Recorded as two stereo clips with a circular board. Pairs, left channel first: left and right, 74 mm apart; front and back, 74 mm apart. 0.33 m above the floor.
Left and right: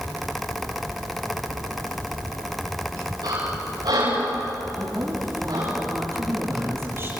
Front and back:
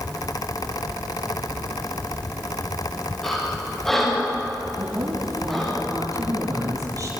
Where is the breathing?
85° right, 9.5 m.